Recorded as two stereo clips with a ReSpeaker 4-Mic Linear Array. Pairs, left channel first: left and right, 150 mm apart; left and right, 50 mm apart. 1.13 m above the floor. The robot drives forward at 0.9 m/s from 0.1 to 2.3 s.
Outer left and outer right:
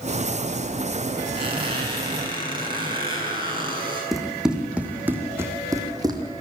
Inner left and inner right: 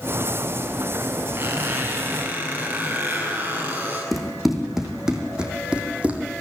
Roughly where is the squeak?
Right.